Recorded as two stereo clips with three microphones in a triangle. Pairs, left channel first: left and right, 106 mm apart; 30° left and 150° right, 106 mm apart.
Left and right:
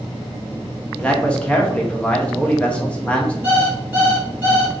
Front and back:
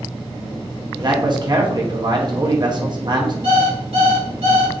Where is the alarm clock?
160° right, 2 m.